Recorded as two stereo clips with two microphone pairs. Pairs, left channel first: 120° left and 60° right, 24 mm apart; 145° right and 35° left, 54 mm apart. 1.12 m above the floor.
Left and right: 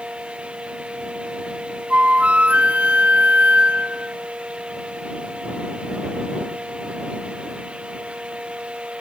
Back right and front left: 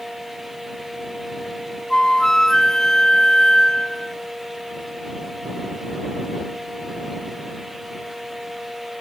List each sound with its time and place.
1.9 s a flute: 65° right